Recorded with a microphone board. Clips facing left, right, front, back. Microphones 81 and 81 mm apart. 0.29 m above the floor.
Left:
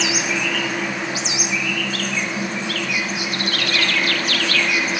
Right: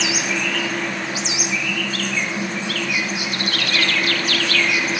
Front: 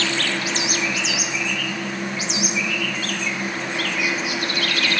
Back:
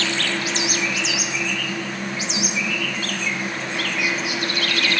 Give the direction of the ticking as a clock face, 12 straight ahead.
No ticking in this recording.